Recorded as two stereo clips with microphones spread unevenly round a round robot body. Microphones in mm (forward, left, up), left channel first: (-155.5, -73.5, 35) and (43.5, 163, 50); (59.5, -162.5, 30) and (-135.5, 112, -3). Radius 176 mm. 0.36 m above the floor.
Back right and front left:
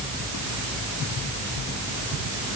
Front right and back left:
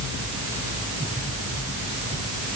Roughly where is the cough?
I don't hear a cough.